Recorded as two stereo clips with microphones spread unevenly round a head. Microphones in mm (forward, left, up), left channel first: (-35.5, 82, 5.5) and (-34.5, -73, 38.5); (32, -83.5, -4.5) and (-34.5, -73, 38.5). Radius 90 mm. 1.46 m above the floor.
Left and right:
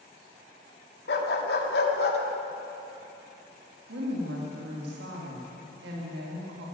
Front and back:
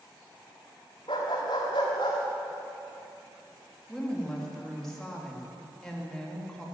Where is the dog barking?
60° left, 1.3 m.